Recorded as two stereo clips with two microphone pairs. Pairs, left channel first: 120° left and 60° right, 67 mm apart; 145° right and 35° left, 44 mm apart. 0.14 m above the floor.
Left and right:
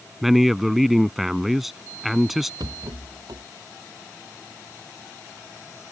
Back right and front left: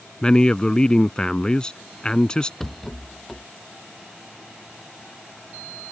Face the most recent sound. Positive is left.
turn(degrees=-65)